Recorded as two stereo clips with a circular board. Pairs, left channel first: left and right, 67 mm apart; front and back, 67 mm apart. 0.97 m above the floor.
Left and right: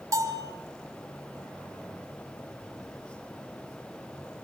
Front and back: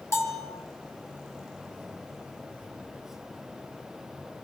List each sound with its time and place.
0.1 s a bell: 50° right, 4 m